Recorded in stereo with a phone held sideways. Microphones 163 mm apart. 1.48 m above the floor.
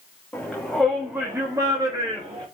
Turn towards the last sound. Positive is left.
turn(degrees=-35)  # may be behind; listen again after turning